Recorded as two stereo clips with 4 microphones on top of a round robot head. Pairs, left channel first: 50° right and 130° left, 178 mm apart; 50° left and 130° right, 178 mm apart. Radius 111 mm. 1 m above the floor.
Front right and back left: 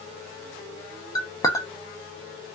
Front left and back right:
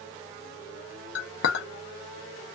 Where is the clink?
25° left, 0.7 m.